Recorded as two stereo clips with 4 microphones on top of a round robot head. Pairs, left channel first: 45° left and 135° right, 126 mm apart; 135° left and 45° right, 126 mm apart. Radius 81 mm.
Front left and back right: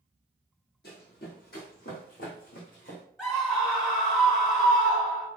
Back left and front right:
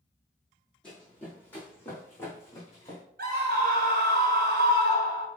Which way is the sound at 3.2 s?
30° right.